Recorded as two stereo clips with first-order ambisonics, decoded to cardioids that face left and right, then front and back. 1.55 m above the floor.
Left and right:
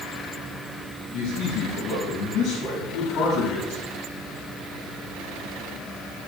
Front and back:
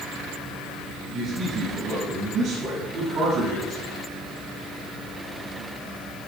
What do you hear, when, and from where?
1.1 s a man speaking: 110° left, 6 m; by 3.8 s 125° left, 6.5 m